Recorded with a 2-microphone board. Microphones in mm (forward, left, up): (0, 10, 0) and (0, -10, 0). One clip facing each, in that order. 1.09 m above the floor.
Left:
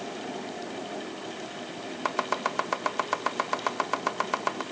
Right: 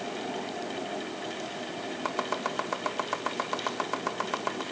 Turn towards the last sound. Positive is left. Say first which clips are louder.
# left 3 dB
turn(degrees=25)  # may be behind; listen again after turning